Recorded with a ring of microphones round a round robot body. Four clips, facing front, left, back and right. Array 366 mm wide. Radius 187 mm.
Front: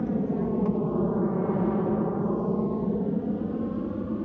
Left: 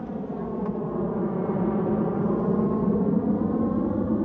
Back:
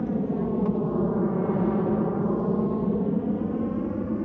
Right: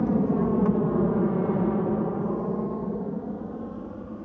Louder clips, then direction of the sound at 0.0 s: Right 8 dB, even; 90° right.